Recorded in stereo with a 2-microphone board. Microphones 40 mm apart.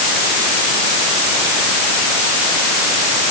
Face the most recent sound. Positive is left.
No sound to turn to.